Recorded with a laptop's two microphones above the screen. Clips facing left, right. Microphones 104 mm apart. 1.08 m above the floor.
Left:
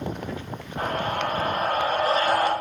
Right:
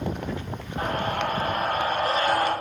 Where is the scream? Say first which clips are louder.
Even; 50° left (ahead or behind), 3.5 m.